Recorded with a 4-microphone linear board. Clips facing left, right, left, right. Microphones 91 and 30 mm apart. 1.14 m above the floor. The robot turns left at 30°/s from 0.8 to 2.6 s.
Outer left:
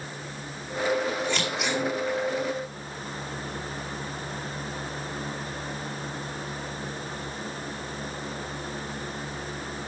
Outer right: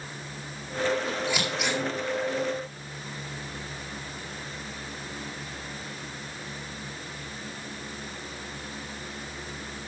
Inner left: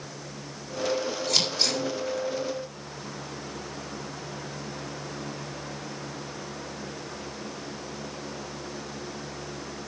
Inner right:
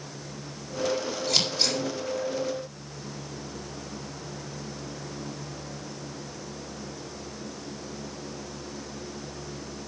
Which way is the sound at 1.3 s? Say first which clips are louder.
Outer left 1 dB, inner right 1 dB; 10° right (ahead or behind).